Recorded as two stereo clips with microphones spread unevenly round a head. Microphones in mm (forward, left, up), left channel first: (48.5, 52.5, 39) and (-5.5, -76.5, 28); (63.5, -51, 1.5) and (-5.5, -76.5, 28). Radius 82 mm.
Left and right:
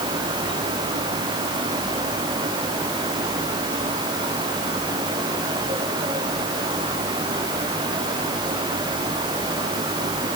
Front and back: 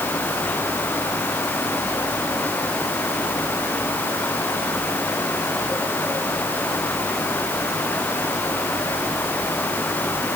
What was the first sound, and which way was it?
Only background noise.